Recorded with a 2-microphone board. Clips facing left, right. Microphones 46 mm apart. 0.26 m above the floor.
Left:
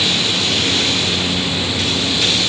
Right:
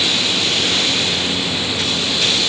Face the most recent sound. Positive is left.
No sound to turn to.